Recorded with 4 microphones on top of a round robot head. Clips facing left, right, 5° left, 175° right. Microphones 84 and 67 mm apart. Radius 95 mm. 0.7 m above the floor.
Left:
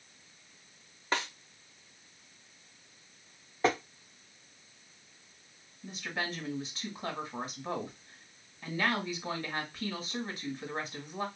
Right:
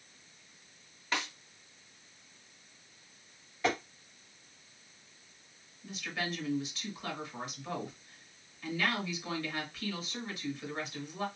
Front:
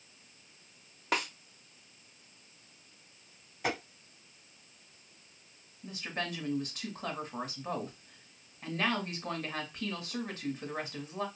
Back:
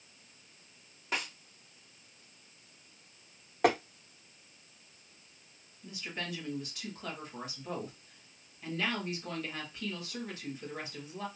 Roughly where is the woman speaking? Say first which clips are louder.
Left 1 dB, front 3 dB; ahead left.